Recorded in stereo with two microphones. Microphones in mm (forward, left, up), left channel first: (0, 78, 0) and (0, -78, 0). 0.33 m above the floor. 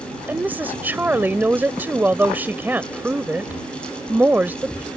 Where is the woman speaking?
10° right (ahead or behind).